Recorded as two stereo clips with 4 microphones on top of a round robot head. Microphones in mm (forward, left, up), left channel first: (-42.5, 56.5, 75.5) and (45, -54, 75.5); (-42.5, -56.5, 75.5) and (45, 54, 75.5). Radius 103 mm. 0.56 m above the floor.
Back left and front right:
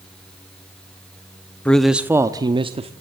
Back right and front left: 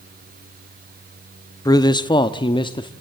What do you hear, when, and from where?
1.6 s a man speaking: 160° right, 0.9 m; by 2.9 s 80° right, 1.2 m